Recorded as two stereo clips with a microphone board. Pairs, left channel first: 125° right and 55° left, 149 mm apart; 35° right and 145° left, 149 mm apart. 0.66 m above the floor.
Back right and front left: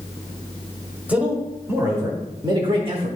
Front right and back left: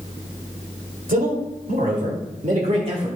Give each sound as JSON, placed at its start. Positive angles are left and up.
{"t": 1.1, "sound": "a man speaking", "azimuth_deg": 135, "distance_m": 2.5}